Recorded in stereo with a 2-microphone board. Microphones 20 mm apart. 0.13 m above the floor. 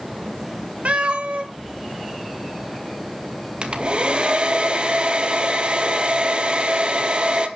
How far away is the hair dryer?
About 1.6 m.